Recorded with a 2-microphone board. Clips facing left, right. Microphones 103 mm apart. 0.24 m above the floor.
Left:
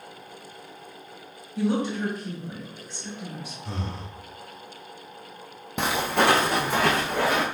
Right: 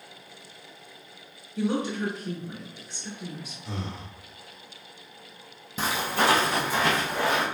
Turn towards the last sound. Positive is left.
turn(degrees=65)  # may be behind; listen again after turning